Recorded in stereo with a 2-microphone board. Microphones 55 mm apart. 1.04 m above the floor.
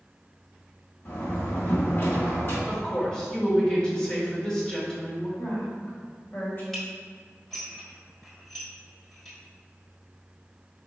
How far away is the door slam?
About 1.3 m.